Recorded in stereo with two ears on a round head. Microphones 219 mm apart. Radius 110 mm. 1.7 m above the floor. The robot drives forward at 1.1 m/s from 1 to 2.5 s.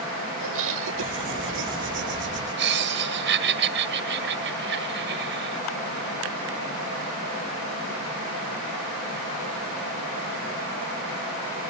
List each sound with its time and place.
0.4 s laughter: 60° right (ahead or behind); by 5.6 s 50° right (ahead or behind)